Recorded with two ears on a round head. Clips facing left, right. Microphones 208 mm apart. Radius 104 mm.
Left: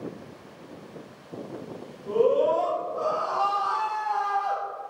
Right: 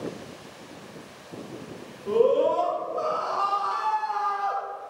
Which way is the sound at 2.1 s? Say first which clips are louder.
Right 1 dB; 55° right (ahead or behind).